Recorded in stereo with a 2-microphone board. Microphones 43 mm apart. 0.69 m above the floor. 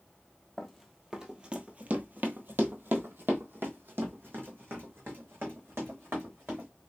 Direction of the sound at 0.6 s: 5° left (ahead or behind).